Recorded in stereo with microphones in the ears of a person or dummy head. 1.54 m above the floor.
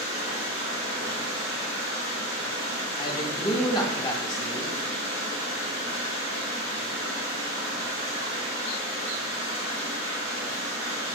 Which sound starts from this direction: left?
A man speaking, at 3.0 s.